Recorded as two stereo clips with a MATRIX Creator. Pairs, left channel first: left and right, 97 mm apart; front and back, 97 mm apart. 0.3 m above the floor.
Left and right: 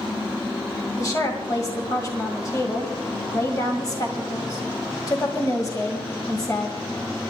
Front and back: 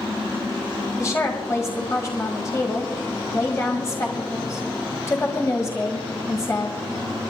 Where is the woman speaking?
50° left, 1.9 m.